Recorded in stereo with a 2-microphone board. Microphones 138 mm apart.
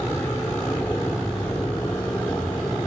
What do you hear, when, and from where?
0.0 s an aircraft: 10° left (ahead or behind)